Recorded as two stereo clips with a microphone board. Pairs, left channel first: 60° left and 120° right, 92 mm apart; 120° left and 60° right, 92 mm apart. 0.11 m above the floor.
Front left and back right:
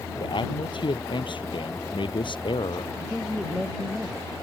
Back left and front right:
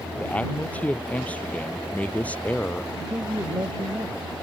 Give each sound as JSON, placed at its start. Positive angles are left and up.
{"t": 0.2, "sound": "a man speaking", "azimuth_deg": 45}
{"t": 3.0, "sound": "a man speaking", "azimuth_deg": -30}